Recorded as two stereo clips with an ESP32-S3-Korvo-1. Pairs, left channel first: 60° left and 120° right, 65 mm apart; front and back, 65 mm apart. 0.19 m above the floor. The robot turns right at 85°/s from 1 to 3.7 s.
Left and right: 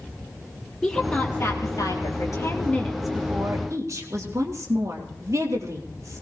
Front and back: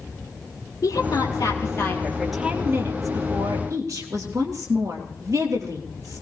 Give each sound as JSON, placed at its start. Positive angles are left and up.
{"t": 0.8, "sound": "a woman speaking", "azimuth_deg": -20, "distance_m": 4.0}